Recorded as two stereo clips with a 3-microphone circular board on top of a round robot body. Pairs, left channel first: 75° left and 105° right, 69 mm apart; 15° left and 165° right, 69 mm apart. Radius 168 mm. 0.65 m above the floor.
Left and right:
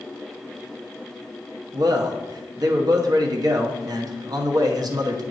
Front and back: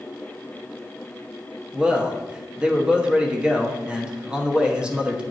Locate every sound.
1.7 s a man speaking: 90° right, 1.1 m